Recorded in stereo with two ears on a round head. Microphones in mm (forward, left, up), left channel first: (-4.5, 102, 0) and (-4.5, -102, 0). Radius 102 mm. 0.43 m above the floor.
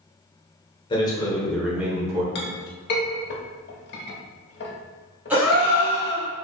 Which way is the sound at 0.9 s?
20° left (ahead or behind).